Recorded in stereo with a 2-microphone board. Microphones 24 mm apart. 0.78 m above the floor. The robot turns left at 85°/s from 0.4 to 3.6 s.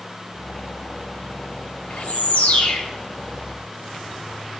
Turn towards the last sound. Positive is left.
turn(degrees=-20)